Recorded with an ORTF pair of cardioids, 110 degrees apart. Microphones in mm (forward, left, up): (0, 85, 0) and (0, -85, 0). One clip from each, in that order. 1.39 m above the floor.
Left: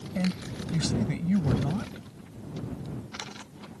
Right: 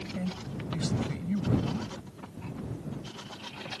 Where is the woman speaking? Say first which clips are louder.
Left 4 dB; 35° left.